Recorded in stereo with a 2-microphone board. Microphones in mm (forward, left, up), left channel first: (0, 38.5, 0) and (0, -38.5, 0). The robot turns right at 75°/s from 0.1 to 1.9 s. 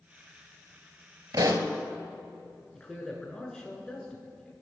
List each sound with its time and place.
1.3 s a pop: 55° right (ahead or behind), 0.7 m; by 1.7 s 40° right (ahead or behind), 0.7 m
2.7 s a man speaking: 10° left (ahead or behind), 1.1 m